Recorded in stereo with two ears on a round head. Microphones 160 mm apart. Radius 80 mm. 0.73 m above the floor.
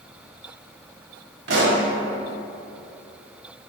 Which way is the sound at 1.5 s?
70° right (ahead or behind).